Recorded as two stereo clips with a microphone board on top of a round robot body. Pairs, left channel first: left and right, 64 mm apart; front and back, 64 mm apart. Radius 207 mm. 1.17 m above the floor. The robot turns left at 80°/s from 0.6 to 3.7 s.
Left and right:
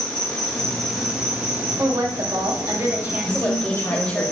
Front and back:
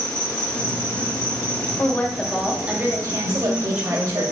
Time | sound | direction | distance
0.0 | an insect | 25° left | 1.3 m
1.8 | a woman speaking | 45° right | 1.1 m
3.2 | a woman speaking | 155° left | 4 m